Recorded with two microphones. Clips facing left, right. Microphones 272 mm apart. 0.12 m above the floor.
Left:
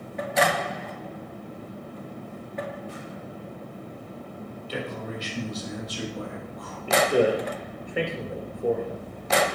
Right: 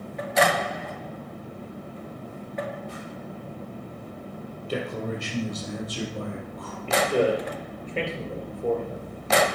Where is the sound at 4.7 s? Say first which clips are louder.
Right 4 dB; 50° right (ahead or behind), 4 m; by 6.8 s 55° right (ahead or behind), 5 m.